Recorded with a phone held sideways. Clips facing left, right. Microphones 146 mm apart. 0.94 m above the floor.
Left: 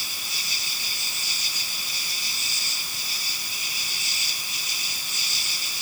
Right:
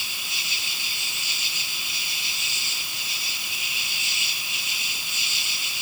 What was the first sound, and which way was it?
An insect, 45° left (ahead or behind).